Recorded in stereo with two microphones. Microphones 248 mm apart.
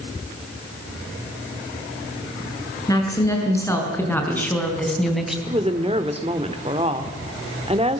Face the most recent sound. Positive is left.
turn(degrees=-25)  # may be behind; listen again after turning